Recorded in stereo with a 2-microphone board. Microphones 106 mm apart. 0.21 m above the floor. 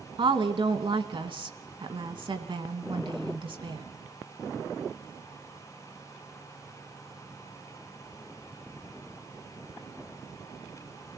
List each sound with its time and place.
0.2 s a woman speaking: 55° right (ahead or behind), 2.0 m